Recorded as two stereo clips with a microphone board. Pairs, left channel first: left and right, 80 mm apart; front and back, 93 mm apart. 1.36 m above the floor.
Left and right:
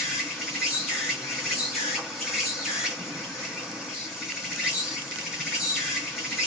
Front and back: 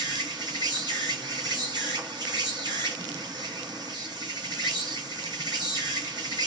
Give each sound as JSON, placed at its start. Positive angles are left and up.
{"t": 0.0, "sound": "an insect", "azimuth_deg": -170, "distance_m": 1.7}